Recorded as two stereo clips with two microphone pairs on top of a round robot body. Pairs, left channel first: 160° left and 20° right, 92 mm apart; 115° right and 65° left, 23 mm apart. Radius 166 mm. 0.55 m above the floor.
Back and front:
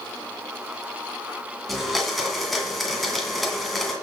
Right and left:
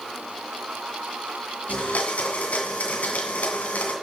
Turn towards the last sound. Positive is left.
turn(degrees=-110)